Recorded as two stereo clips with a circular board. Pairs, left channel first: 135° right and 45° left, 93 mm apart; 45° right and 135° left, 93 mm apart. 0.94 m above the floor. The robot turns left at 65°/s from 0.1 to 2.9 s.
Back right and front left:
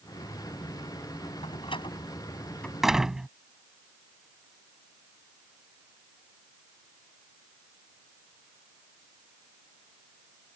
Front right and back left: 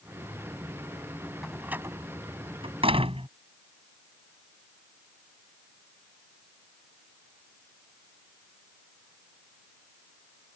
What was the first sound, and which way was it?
A door slam, 135° right.